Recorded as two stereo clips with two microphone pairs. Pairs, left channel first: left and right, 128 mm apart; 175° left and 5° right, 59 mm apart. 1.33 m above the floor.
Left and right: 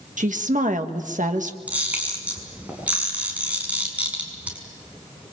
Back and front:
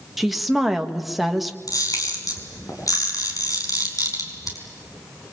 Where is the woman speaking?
95° right, 1.8 m.